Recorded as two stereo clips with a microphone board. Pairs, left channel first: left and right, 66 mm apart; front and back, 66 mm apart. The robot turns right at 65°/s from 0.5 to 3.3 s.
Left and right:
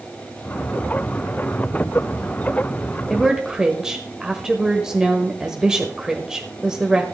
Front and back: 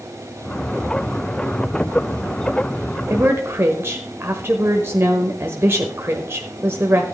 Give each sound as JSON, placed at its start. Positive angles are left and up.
{"t": 3.1, "sound": "a woman speaking", "azimuth_deg": 180, "distance_m": 1.1}